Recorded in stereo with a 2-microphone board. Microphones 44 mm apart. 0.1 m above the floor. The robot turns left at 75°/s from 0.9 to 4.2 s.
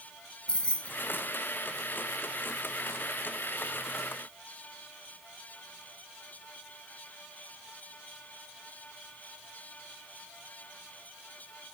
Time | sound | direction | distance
0.5 | keys jangling | 25° left (ahead or behind) | 1.0 m